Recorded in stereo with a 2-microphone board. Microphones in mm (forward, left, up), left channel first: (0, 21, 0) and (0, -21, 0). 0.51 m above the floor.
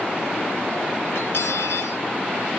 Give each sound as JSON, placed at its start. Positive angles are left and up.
{"t": 1.1, "sound": "cutlery clinking", "side_deg": 60, "distance_m": 6.0}